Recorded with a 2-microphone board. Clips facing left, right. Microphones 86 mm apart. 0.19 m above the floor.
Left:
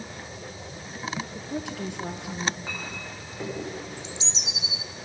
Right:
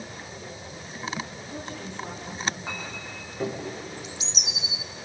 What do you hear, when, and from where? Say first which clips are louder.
1.4 s a woman speaking: left 4 dB; 70° left (ahead or behind), 3.5 m
2.7 s a clink: even; 10° right (ahead or behind), 7.5 m
4.0 s a bird: even; 25° left (ahead or behind), 0.8 m